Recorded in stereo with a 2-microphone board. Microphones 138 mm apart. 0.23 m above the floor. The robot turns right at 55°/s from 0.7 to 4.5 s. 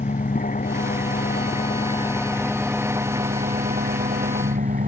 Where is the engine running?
75° left; by 4.9 s 75° right.